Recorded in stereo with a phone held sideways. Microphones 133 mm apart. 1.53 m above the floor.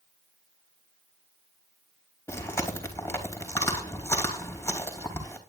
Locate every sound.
2.3 s chewing: 20° left (ahead or behind), 4 m